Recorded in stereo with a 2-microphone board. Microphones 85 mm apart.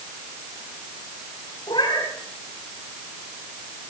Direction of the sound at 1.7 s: 60° left (ahead or behind).